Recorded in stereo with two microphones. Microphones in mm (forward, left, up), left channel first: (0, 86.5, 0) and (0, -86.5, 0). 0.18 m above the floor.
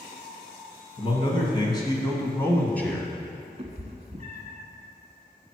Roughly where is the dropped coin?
I don't hear a dropped coin.